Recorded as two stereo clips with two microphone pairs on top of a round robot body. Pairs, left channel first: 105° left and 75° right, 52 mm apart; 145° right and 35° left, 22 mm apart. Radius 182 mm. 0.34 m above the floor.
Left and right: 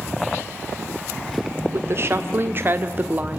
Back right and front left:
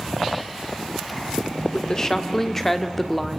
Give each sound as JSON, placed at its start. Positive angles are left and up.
{"t": 1.7, "sound": "a woman speaking", "azimuth_deg": -80, "distance_m": 2.0}